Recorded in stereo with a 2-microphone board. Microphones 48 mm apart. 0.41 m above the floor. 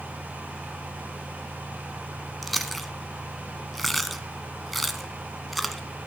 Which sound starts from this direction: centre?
Chewing, at 2.4 s.